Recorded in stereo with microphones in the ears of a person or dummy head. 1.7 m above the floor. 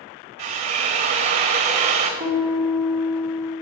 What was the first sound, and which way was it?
A drill, 35° right (ahead or behind).